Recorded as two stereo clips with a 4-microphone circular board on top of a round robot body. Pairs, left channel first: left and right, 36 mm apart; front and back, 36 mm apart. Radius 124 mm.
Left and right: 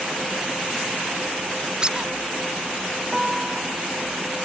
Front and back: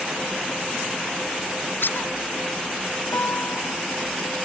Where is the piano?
15° right.